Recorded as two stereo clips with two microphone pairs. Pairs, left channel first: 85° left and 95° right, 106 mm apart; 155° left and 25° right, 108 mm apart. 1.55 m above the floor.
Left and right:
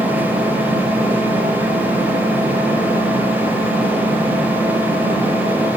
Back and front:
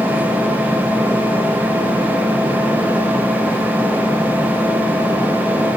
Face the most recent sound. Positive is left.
turn(degrees=-125)